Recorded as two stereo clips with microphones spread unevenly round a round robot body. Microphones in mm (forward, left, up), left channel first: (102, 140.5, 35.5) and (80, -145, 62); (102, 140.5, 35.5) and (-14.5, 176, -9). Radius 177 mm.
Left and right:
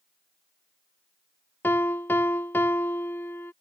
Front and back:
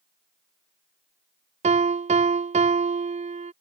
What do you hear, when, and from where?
1.6 s a piano: 170° left